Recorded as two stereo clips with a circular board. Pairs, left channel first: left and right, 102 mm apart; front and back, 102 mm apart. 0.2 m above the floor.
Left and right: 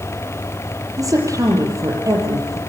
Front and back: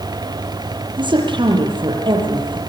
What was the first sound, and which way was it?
A woman speaking, 145° right.